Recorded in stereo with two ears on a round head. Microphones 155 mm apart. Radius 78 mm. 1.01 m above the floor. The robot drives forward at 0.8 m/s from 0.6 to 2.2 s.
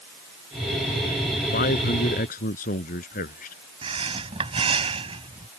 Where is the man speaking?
50° left (ahead or behind).